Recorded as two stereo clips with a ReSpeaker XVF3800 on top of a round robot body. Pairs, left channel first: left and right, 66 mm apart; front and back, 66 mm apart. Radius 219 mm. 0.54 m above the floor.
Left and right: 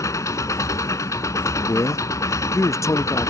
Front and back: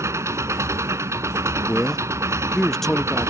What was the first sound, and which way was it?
An engine running, 130° left.